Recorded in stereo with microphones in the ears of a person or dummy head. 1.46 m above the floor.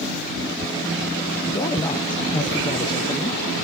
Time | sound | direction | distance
1.5 | a man speaking | 20° left (ahead or behind) | 0.8 m